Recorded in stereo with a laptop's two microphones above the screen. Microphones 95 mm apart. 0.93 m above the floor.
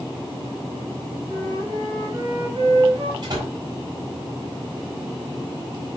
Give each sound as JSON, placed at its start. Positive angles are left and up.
{"t": 1.3, "sound": "a flute", "side_deg": -55, "distance_m": 4.0}
{"t": 3.2, "sound": "a door slam", "side_deg": -45, "distance_m": 5.0}